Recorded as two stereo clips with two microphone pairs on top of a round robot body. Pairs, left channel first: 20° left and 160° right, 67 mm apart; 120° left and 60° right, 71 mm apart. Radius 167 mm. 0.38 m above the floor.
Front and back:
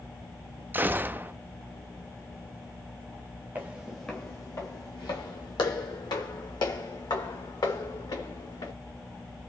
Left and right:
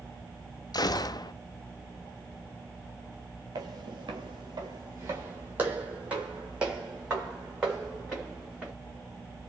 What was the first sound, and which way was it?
A gunshot, 140° left.